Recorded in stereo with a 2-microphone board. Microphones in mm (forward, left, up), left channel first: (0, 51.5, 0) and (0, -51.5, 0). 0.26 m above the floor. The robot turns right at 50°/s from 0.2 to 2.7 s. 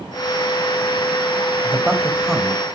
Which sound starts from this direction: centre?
A man speaking, at 1.6 s.